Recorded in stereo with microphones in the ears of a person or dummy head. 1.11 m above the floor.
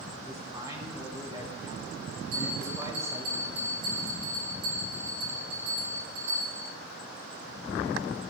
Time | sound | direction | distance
0.2 | a man speaking | 20° right (ahead or behind) | 4 m
2.3 | a bell | 60° right (ahead or behind) | 2.5 m